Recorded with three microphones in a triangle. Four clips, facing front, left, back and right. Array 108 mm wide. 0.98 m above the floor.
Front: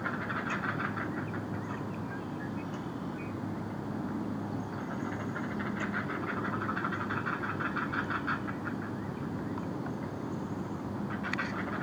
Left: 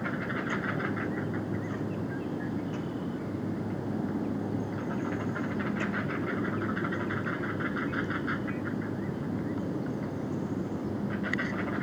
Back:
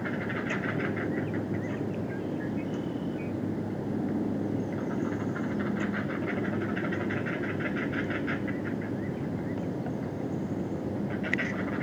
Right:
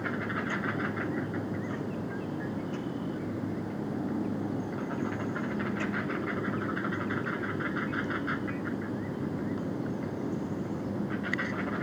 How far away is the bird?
I don't hear a bird.